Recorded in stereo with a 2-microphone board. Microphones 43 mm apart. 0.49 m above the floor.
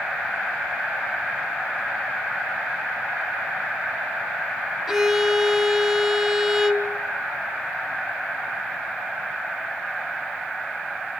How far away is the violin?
About 1.1 m.